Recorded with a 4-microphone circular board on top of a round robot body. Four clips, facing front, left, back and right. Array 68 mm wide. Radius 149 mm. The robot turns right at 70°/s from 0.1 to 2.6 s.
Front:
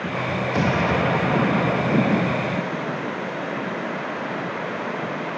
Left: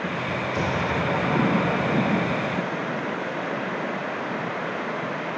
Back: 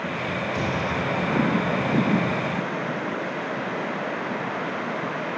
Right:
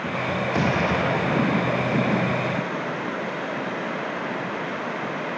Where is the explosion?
55° right, 3 m; by 3.0 s 90° left, 3 m.